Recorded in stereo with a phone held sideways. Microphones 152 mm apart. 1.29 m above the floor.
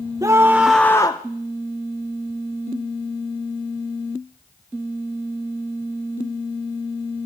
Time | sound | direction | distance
0.2 | a scream | 25° right (ahead or behind) | 1.0 m